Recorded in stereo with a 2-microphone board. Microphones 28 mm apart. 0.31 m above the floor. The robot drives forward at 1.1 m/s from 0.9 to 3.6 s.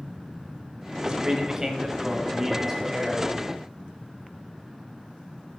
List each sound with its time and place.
1.0 s a man speaking: 30° right (ahead or behind), 1.1 m; by 3.3 s 10° right (ahead or behind), 3 m